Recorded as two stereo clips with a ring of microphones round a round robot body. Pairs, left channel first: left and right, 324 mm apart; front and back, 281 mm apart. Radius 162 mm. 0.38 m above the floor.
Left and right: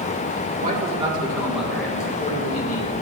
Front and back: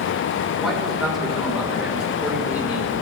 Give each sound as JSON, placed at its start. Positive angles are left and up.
{"t": 0.6, "sound": "a man speaking", "azimuth_deg": -90, "distance_m": 1.4}